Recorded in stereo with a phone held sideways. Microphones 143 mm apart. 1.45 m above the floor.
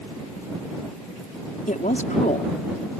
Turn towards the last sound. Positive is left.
turn(degrees=70)  # may be behind; listen again after turning